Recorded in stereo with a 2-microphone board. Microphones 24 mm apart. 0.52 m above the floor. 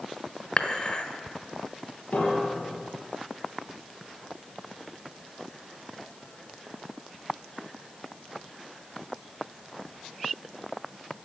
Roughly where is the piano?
Left.